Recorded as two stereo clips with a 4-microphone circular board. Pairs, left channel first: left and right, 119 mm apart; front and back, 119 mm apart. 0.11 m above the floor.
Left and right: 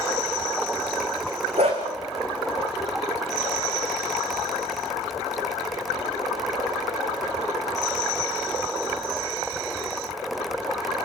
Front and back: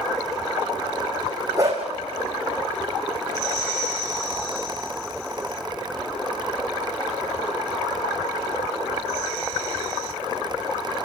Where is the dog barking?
120° right, 4 m.